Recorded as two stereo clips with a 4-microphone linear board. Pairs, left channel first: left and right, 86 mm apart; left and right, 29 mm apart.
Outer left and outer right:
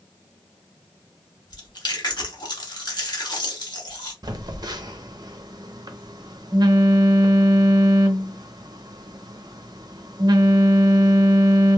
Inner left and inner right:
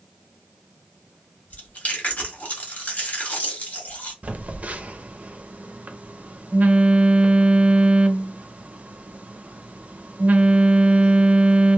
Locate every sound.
1.5 s chewing: 55° left (ahead or behind), 1.1 m
4.2 s a phone buzzing: 50° right (ahead or behind), 0.5 m